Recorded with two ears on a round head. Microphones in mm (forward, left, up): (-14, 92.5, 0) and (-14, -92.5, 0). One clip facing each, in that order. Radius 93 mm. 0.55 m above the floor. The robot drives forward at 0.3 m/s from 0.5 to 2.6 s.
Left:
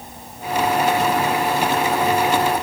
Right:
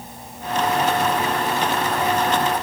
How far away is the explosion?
No explosion in this recording.